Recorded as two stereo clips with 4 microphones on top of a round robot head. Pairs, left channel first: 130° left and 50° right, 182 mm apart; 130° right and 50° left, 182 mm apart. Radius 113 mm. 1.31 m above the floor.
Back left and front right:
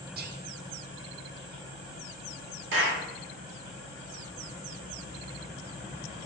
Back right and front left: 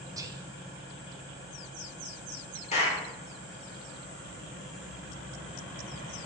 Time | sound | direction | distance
0.2 | whispering | 20° right | 0.5 m
2.7 | a clap | 75° right | 3.5 m